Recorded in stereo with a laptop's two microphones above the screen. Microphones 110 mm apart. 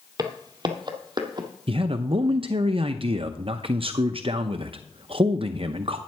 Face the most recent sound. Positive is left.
turn(degrees=-55)  # may be behind; listen again after turning